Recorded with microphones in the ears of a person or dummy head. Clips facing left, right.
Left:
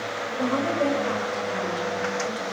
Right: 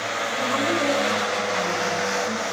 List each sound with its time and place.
0.4 s a woman speaking: 45° left (ahead or behind), 4 m